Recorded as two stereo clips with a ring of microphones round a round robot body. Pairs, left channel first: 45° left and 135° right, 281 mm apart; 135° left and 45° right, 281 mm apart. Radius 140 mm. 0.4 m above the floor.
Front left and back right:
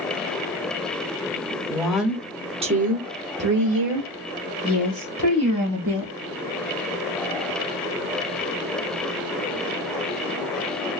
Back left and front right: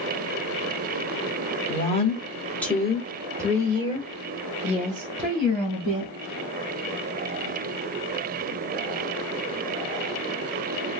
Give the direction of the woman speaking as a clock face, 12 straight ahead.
8 o'clock.